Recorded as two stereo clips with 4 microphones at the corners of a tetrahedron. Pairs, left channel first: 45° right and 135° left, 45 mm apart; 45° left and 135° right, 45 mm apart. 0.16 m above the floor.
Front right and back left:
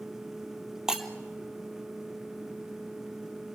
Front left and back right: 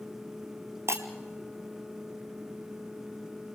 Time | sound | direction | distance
0.9 | breaking glass | 145° right | 1.8 m